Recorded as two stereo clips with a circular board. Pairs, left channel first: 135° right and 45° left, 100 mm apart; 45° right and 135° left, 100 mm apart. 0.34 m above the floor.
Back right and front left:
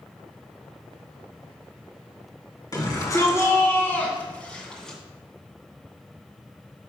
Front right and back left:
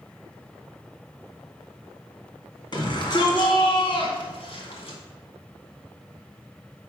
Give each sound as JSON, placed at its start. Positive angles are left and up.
{"t": 2.7, "sound": "a shout", "azimuth_deg": -85, "distance_m": 2.5}